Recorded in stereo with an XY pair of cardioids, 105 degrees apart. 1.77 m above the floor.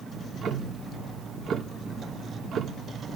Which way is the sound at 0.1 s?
55° right.